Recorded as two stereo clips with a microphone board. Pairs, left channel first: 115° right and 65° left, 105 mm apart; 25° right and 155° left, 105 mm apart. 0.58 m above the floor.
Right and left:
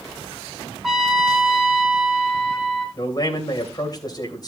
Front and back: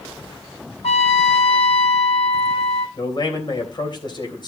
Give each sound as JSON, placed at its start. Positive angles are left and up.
{"t": 0.8, "sound": "a trumpet", "azimuth_deg": -20, "distance_m": 1.7}
{"t": 3.0, "sound": "a man speaking", "azimuth_deg": -65, "distance_m": 3.0}